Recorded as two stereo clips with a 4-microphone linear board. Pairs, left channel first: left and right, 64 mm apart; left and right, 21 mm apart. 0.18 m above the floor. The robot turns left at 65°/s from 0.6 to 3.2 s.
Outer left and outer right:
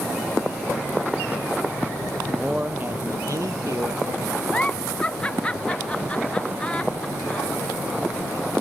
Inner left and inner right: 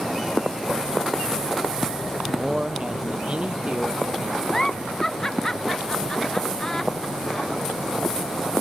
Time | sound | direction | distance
2.3 | a man speaking | 5° left | ?
4.5 | a giggle | 20° left (ahead or behind) | ?